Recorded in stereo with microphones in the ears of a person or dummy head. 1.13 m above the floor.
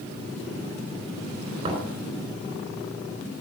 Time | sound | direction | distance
1.6 | knocking | 35° right (ahead or behind) | 4.5 m